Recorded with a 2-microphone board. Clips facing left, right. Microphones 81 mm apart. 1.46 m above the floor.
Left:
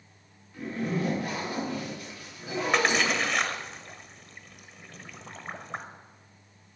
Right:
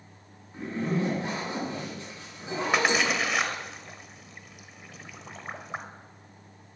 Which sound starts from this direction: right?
A zipper, at 0.5 s.